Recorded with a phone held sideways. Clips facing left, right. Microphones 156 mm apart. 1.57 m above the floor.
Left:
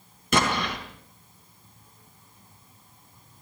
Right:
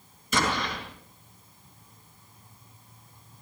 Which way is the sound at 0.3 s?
65° left (ahead or behind).